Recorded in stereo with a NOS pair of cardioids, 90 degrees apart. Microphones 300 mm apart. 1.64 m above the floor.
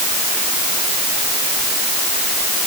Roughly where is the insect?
No insect in this recording.